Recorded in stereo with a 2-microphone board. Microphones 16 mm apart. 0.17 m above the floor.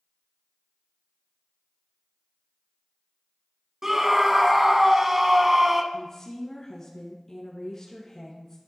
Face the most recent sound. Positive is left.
turn(degrees=30)  # may be behind; listen again after turning